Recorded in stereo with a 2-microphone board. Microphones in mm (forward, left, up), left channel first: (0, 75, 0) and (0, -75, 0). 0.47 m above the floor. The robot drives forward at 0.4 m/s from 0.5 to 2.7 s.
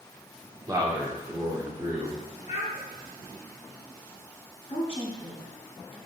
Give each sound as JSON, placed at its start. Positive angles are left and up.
{"t": 0.7, "sound": "a man speaking", "side_deg": -25, "distance_m": 0.7}
{"t": 2.5, "sound": "a child speaking", "side_deg": 45, "distance_m": 0.9}
{"t": 4.7, "sound": "a woman speaking", "side_deg": 35, "distance_m": 0.9}